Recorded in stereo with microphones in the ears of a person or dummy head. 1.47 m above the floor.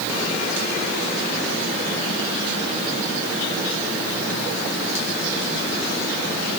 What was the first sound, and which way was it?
Only background noise.